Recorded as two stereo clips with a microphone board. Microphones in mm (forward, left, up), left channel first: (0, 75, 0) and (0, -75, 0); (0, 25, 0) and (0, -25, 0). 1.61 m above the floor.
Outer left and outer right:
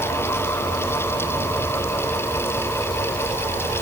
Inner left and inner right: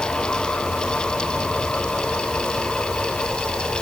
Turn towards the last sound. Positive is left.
No sound to turn to.